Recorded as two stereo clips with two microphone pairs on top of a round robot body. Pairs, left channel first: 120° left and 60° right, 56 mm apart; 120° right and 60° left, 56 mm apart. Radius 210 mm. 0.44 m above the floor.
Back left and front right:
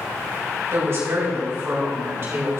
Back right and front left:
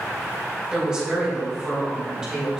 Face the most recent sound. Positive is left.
turn(degrees=-20)